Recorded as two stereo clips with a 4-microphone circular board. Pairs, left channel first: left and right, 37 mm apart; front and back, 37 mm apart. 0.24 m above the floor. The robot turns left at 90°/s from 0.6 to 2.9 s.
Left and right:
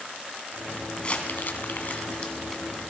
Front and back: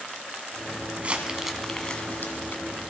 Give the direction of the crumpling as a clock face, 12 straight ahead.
7 o'clock.